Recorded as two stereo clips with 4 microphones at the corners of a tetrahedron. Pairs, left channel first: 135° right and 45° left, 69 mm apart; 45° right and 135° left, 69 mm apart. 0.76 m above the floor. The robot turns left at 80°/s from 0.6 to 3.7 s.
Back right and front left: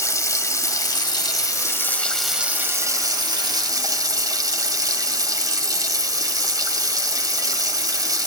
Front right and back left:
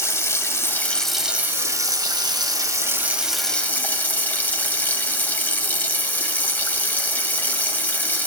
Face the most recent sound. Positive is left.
turn(degrees=20)